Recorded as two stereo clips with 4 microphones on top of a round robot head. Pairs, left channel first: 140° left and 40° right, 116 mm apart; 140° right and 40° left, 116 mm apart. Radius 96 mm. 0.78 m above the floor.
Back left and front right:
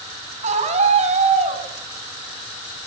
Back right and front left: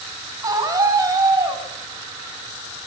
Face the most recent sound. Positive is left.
turn(degrees=-20)